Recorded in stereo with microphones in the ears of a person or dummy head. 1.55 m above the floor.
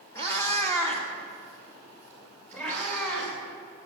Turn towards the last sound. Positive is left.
turn(degrees=10)  # may be behind; listen again after turning